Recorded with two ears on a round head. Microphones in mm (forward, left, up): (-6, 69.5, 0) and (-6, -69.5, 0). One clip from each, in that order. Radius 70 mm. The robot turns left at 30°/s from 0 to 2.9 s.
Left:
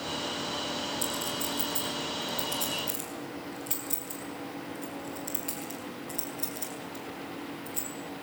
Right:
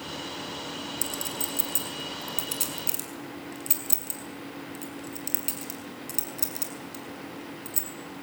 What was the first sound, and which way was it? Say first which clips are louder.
A clink: left 1 dB; 30° right (ahead or behind).